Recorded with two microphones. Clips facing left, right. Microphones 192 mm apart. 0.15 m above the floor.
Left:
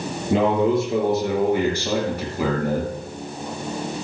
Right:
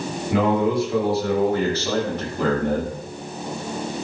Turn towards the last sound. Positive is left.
turn(degrees=0)  # may be behind; listen again after turning